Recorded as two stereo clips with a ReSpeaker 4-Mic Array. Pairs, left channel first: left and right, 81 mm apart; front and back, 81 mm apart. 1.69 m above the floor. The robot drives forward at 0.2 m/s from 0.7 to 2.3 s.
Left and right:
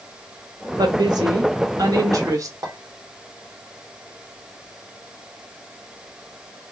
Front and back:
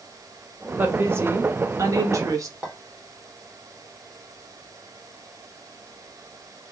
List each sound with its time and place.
0.8 s a woman speaking: 115° right, 0.7 m; by 2.5 s 135° right, 0.9 m
2.6 s a clink: 105° right, 1.2 m